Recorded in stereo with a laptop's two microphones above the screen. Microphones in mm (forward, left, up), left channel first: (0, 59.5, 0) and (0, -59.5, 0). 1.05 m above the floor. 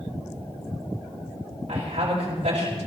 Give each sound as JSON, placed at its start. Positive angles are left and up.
{"t": 1.7, "sound": "a woman speaking", "side_deg": -50, "distance_m": 5.5}